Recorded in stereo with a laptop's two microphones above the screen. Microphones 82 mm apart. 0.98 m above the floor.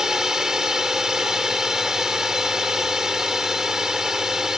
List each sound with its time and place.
0.0 s a drone: 5° right (ahead or behind)